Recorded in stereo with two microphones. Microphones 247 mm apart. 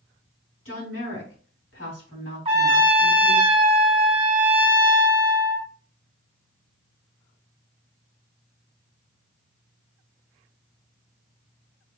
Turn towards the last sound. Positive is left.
turn(degrees=-20)  # may be behind; listen again after turning